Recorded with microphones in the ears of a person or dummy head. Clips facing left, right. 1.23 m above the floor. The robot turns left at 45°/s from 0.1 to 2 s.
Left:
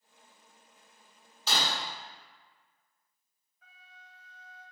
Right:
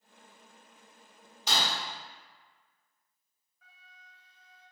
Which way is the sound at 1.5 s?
20° right (ahead or behind).